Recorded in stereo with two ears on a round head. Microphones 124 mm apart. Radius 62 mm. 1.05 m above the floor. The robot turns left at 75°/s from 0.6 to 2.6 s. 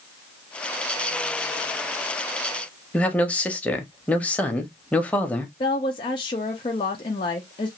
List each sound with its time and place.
2.9 s a man speaking: 10° left (ahead or behind), 0.6 m
5.6 s a woman speaking: 35° left (ahead or behind), 0.5 m